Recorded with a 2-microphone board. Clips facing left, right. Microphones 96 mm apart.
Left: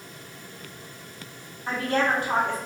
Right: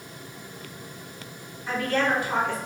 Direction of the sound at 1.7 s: 60° left (ahead or behind).